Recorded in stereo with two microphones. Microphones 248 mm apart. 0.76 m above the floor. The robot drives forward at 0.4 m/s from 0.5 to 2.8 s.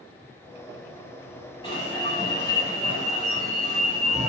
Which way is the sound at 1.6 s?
20° left (ahead or behind).